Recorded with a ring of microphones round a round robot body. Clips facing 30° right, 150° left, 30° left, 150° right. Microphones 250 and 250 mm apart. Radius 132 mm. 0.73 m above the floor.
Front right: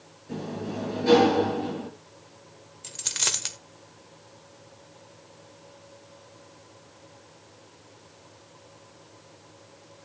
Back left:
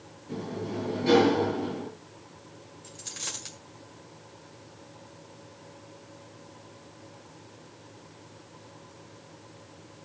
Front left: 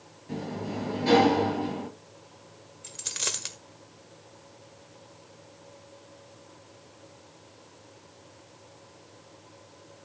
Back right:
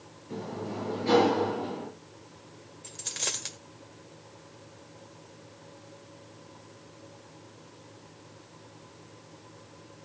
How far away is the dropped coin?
About 1.4 m.